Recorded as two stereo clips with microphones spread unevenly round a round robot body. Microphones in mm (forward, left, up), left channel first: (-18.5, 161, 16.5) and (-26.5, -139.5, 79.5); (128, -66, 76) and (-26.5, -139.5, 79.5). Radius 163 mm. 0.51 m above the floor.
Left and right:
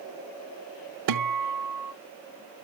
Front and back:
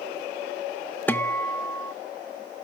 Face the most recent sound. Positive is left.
turn(degrees=-55)